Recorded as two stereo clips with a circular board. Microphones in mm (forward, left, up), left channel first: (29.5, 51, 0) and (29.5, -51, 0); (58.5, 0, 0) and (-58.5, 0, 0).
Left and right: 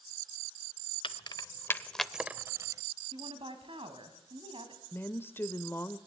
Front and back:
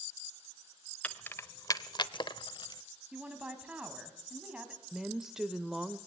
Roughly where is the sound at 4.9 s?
Left.